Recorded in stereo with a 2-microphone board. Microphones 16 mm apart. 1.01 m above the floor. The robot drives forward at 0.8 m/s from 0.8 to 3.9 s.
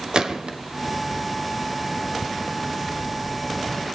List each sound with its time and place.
0.1 s a gunshot: 65° right (ahead or behind), 1.4 m